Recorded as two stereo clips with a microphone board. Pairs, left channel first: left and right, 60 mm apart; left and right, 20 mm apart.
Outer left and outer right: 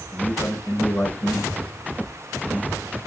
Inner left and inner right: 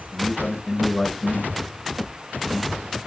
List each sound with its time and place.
0.1 s a man speaking: 75° left (ahead or behind), 7 m